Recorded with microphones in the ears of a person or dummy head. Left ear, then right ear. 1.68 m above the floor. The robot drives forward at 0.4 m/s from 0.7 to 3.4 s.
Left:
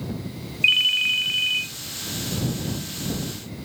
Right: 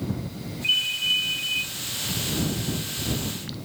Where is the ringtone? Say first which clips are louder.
Left 5 dB; 45° left (ahead or behind), 0.9 m.